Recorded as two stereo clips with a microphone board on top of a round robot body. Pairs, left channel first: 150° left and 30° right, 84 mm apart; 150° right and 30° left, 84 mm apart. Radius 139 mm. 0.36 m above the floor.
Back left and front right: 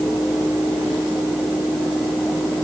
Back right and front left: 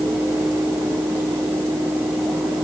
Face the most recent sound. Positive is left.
No sound to turn to.